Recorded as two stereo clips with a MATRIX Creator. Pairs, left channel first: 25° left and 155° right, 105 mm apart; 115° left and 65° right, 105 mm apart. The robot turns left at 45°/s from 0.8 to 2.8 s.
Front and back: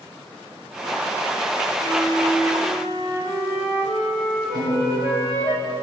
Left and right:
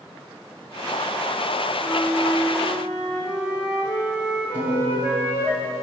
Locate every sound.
1.8 s a flute: 50° left, 2.5 m; by 5.5 s 5° left, 2.5 m
4.5 s a piano: 5° left, 3 m